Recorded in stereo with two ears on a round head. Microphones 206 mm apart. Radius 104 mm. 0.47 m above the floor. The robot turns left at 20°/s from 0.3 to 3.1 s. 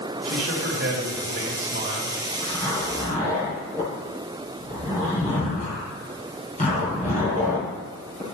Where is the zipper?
20° left (ahead or behind), 4.5 m; by 8.2 s 35° left (ahead or behind), 4.5 m.